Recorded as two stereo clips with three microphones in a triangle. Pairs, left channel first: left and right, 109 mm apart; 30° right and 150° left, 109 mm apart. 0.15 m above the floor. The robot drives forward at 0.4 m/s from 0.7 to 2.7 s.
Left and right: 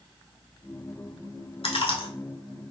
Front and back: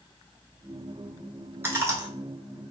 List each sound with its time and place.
1.6 s chewing: 85° left, 0.7 m; by 2.1 s 105° left, 0.7 m